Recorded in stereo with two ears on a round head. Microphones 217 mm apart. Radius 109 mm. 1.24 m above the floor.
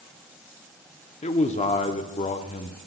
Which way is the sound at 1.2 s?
25° left (ahead or behind).